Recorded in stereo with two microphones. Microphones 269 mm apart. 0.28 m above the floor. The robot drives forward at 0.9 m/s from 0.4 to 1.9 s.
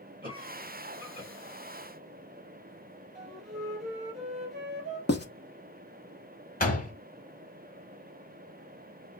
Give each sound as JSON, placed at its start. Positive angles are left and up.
{"t": 0.2, "sound": "a cough", "side_deg": -30, "distance_m": 1.6}
{"t": 3.1, "sound": "a flute", "side_deg": 0, "distance_m": 3.0}
{"t": 5.1, "sound": "writing", "side_deg": 40, "distance_m": 0.8}
{"t": 6.6, "sound": "a door slam", "side_deg": 30, "distance_m": 1.0}